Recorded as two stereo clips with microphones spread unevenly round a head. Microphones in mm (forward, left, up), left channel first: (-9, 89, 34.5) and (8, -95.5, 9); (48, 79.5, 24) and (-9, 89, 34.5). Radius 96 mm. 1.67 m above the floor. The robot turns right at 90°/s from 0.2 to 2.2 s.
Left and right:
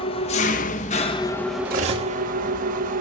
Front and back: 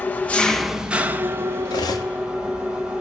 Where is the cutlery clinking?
45° right, 2 m; by 2.1 s 5° right, 2 m.